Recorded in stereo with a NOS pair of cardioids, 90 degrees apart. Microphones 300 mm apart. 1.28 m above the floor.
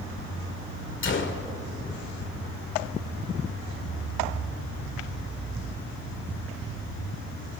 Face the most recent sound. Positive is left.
turn(degrees=40)